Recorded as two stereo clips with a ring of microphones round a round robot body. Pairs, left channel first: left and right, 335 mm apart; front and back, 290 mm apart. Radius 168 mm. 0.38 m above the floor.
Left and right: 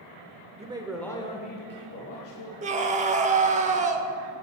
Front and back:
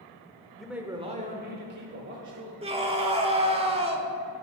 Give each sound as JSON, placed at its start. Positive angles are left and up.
{"t": 0.6, "sound": "a man speaking", "azimuth_deg": -80, "distance_m": 0.9}
{"t": 2.6, "sound": "a scream", "azimuth_deg": -135, "distance_m": 0.8}